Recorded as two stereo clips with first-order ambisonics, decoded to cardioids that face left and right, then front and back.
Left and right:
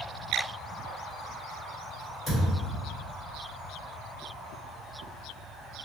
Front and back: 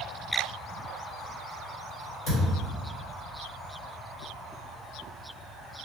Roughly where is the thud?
Ahead left.